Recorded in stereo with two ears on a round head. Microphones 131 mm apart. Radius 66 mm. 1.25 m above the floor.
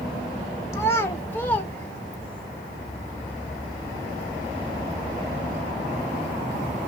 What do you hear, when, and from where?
0.7 s a child speaking: 20° left (ahead or behind), 1.0 m; by 2.5 s 5° left (ahead or behind), 1.8 m